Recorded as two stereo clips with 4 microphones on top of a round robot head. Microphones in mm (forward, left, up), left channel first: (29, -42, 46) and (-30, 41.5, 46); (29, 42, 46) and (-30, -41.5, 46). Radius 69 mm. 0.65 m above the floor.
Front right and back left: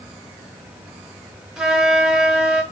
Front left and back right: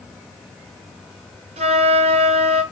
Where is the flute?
145° right, 1.8 m.